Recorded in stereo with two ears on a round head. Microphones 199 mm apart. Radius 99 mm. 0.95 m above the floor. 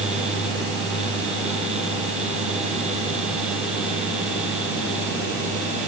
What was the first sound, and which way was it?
Only background noise.